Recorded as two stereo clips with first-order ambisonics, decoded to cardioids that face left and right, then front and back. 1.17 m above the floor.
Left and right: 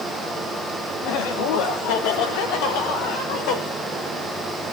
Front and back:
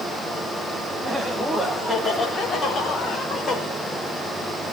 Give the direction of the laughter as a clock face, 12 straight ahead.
9 o'clock.